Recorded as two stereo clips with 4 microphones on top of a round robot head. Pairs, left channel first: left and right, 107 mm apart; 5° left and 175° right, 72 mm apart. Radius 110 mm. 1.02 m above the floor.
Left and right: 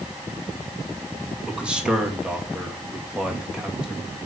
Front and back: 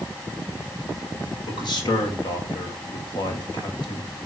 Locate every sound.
1.5 s a man speaking: 10° right, 2 m